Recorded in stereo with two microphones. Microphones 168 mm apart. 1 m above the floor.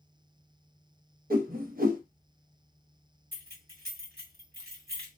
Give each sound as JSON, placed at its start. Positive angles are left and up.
{"t": 1.3, "sound": "a whoosh", "side_deg": -60, "distance_m": 0.7}
{"t": 3.3, "sound": "keys jangling", "side_deg": -65, "distance_m": 2.0}